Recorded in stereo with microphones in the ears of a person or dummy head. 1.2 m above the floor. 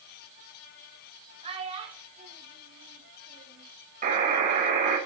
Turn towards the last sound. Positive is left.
turn(degrees=-45)  # may be behind; listen again after turning